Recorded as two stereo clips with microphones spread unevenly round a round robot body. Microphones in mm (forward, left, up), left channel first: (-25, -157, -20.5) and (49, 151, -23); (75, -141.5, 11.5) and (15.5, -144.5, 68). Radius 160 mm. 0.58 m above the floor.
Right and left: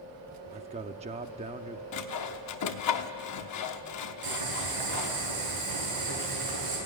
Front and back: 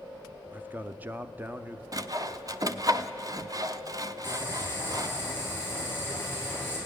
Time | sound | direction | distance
0.5 | a man speaking | 35° left | 0.6 m
1.9 | sawing | 105° right | 0.9 m
4.2 | boiling | 100° left | 7 m